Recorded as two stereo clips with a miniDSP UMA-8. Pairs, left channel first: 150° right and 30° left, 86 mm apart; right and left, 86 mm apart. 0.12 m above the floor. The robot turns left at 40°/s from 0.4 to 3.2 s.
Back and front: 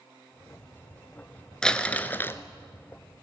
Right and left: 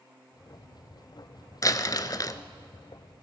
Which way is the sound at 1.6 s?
75° right.